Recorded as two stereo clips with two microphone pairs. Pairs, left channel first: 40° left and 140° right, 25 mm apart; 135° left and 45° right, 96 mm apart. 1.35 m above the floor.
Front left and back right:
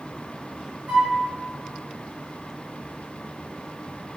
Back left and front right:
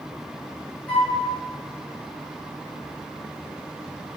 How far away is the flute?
About 2 m.